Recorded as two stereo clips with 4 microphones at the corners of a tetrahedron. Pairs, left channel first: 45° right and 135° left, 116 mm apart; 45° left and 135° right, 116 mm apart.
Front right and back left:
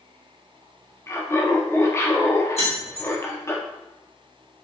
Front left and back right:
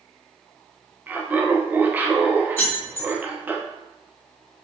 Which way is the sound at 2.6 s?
25° right.